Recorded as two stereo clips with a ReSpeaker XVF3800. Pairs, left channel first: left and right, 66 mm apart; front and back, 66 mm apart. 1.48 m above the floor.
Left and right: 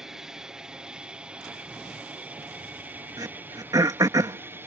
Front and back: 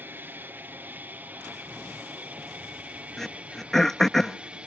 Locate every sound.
0.0 s an aircraft: 165° right; by 4.7 s 115° right
3.2 s throat clearing: 85° right